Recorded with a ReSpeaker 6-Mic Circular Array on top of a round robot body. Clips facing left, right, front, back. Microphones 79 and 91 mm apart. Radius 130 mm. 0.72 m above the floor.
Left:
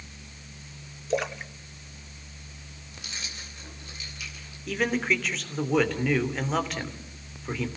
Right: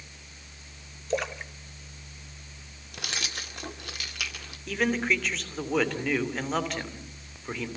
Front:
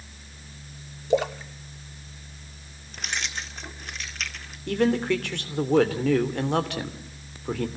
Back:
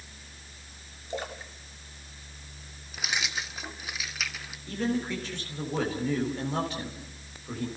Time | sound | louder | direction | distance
1.1 | a splash | left 2 dB, front 12 dB | 5° left | 0.6 m
2.9 | keys jangling | right 6 dB, even | 95° right | 1.7 m
4.7 | a man speaking | even, front 7 dB | straight ahead | 3 m